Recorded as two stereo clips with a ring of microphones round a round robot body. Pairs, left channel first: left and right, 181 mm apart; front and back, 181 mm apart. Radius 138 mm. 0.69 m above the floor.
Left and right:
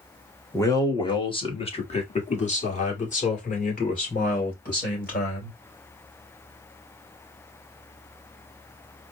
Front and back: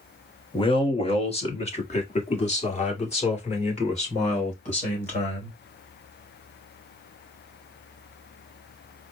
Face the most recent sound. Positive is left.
turn(degrees=50)